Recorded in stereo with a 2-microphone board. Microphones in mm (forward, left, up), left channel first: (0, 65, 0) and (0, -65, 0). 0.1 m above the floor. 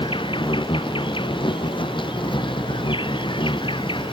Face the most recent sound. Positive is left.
turn(degrees=40)  # may be behind; listen again after turning